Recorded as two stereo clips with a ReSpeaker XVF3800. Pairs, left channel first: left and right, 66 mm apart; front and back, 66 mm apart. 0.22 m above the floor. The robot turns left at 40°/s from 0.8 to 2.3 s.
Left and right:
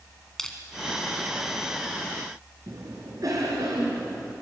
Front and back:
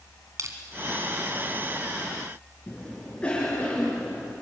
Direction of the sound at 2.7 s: 70° right.